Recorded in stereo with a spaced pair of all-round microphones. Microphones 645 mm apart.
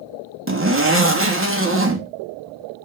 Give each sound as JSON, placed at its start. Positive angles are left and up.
{"t": 0.5, "sound": "a zipper", "side_deg": -20, "distance_m": 1.5}